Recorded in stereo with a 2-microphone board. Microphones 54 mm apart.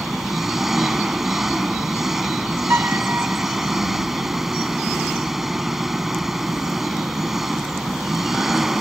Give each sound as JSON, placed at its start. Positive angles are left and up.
{"t": 0.0, "sound": "an engine running", "side_deg": -5}
{"t": 2.7, "sound": "a piano", "side_deg": -45}